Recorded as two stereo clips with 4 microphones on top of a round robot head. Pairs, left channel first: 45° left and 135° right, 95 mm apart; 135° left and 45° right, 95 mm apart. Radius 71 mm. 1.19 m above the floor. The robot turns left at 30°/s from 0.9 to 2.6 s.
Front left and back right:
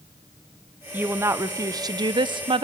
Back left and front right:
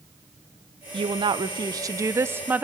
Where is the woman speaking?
65° right, 0.9 m; by 2.6 s 115° right, 0.9 m.